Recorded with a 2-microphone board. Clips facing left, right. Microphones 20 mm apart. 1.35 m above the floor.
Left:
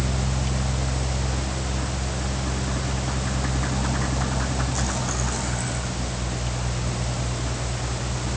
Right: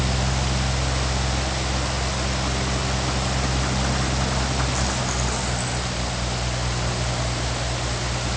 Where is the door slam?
No door slam in this recording.